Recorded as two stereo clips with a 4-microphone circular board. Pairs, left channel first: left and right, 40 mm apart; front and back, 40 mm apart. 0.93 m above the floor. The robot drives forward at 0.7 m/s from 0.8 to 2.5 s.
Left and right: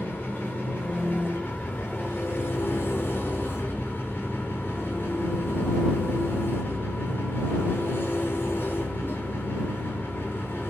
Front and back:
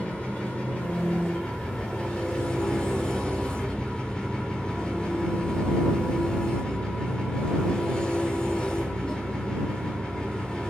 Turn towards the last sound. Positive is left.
turn(degrees=65)